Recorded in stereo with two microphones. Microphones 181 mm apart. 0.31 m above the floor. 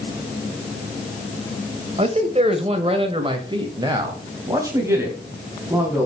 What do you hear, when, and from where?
2.0 s a man speaking: 35° right (ahead or behind), 1.6 m; by 6.1 s 10° right (ahead or behind), 3 m